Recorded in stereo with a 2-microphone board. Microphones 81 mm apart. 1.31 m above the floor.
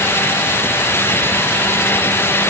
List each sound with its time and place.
Only background noise.